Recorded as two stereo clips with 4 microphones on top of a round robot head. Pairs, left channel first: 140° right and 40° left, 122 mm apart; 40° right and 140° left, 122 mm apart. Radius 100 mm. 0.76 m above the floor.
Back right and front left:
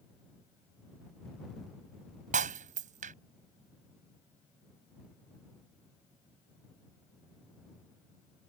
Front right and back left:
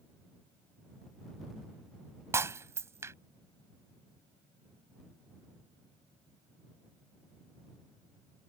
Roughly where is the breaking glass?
Left.